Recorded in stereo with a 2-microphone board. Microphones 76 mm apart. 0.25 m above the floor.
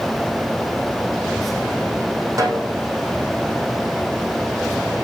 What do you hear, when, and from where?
2.4 s a snare drum: 45° right (ahead or behind), 4.5 m